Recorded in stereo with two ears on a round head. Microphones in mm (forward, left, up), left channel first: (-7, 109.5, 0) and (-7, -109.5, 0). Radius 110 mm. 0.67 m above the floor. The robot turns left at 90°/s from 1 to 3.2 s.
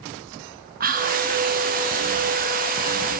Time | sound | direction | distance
0.8 | whispering | 35° right (ahead or behind) | 1.1 m